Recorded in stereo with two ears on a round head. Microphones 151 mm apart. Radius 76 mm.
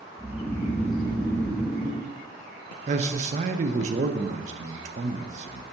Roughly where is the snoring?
Centre.